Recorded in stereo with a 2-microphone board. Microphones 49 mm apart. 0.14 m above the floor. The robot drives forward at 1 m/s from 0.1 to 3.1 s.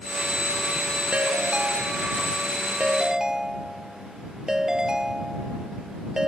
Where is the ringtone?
30° right (ahead or behind); by 6.3 s 15° right (ahead or behind).